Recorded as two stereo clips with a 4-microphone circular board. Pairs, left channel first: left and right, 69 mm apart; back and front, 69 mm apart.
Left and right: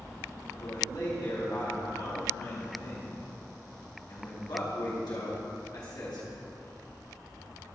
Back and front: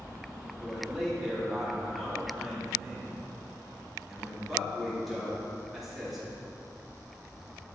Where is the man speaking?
90° left, 2.5 m.